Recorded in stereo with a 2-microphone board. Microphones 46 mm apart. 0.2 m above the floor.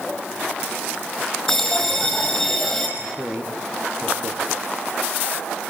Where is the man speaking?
50° right (ahead or behind), 4 m.